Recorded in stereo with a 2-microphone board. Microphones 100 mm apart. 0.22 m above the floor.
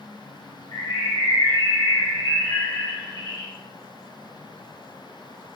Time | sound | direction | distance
0.7 | a bird | 35° left (ahead or behind) | 1.4 m